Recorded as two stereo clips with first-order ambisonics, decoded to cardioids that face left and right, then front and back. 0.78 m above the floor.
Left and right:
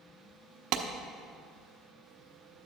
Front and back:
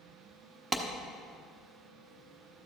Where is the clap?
105° right, 1.0 m.